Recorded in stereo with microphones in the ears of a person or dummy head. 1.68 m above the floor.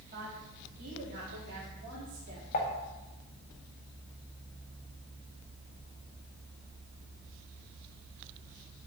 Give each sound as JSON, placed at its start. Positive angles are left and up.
{"t": 0.1, "sound": "a woman speaking", "side_deg": -40, "distance_m": 3.5}
{"t": 2.5, "sound": "dishes clattering", "side_deg": 40, "distance_m": 1.8}